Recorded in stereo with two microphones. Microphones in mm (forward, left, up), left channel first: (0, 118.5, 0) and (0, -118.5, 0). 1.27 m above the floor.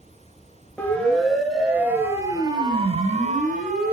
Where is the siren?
5° left (ahead or behind), 5.5 m; by 3.9 s 45° right (ahead or behind), 4.5 m.